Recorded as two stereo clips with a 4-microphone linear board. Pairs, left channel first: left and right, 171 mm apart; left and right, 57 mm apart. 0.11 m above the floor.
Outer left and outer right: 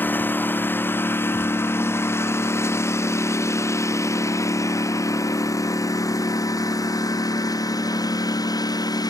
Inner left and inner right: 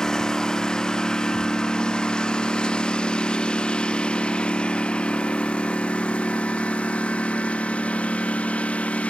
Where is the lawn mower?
10° left (ahead or behind); by 9.1 s 20° left (ahead or behind).